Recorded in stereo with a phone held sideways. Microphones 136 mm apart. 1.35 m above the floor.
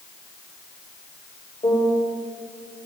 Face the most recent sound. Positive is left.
turn(degrees=35)  # may be behind; listen again after turning